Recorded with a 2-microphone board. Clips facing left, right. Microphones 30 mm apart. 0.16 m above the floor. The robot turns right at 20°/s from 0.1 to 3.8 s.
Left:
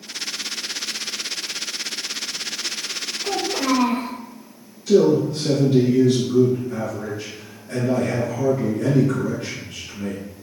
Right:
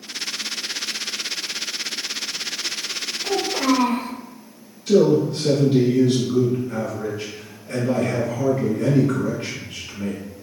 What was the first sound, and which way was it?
A child speaking, 15° left (ahead or behind).